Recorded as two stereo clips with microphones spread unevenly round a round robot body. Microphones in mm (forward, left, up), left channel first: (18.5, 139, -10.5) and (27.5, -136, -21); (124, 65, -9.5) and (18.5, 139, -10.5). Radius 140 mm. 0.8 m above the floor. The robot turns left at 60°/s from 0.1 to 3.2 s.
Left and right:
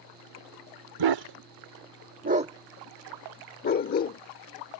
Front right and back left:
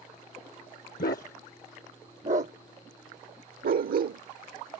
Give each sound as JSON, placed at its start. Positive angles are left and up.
{"t": 1.0, "sound": "a dog barking", "azimuth_deg": -75}